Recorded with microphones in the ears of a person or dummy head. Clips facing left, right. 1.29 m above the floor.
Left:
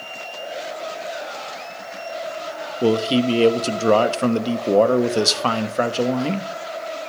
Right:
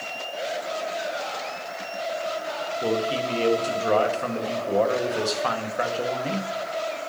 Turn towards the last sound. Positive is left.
turn(degrees=60)  # may be behind; listen again after turning